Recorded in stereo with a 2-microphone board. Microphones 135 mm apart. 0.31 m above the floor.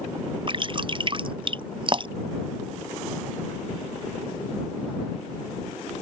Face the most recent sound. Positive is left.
turn(degrees=-40)  # may be behind; listen again after turning